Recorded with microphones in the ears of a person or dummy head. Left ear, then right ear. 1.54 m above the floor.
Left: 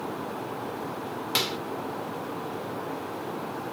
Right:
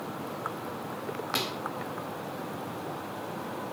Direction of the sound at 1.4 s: 15° left (ahead or behind).